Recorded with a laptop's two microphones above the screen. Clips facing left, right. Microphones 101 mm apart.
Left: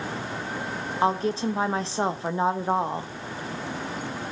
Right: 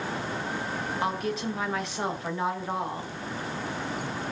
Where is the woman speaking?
30° left (ahead or behind), 0.8 m.